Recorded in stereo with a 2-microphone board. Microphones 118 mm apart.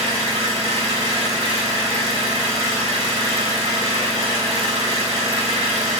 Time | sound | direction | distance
0.0 | an engine running | 50° left (ahead or behind) | 1.7 m